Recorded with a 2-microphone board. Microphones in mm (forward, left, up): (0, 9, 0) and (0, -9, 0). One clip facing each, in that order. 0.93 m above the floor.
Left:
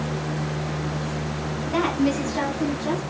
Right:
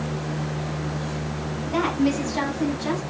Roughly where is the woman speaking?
Centre.